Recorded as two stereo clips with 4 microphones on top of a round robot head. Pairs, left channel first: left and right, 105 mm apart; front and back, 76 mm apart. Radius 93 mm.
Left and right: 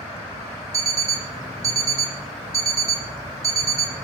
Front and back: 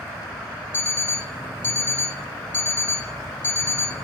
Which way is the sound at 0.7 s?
50° right.